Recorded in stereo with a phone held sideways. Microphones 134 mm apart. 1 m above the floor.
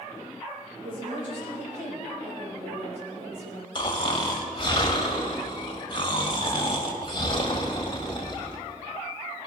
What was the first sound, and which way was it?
A woman speaking, 80° right.